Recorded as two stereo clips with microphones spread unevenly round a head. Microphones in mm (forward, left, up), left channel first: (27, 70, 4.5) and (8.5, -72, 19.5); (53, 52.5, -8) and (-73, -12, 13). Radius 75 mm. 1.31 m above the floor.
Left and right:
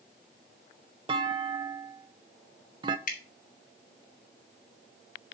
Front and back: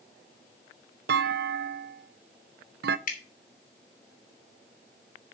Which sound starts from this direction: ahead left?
Dripping, at 3.1 s.